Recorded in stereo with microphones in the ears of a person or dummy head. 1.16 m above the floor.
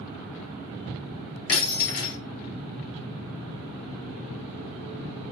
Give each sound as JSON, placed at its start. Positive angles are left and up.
{"t": 1.5, "sound": "breaking glass", "side_deg": 45, "distance_m": 6.0}